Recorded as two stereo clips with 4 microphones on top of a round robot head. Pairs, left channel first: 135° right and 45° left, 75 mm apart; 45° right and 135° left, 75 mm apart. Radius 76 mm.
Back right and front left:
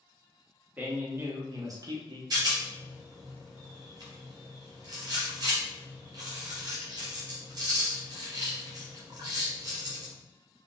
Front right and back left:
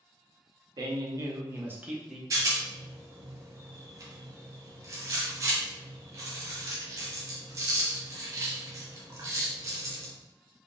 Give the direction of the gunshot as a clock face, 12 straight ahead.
I don't hear a gunshot.